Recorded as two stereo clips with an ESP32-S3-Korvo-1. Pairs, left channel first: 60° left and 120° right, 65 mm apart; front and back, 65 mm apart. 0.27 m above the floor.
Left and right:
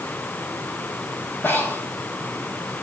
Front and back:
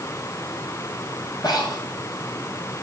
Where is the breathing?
5° left, 2.5 m.